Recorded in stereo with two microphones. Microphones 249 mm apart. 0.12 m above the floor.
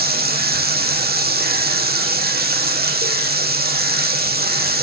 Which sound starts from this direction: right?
Running water, at 0.0 s.